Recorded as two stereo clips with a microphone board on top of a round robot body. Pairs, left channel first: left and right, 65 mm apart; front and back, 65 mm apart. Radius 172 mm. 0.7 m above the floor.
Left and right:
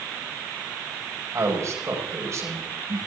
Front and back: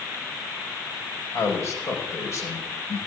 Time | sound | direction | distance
1.3 | a man speaking | 45° right | 5.5 m